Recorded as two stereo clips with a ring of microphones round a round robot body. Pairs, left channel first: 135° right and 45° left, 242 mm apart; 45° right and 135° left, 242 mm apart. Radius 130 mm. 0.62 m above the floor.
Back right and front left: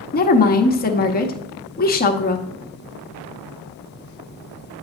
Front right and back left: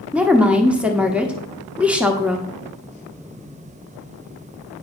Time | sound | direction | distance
0.1 | a woman speaking | 145° right | 0.8 m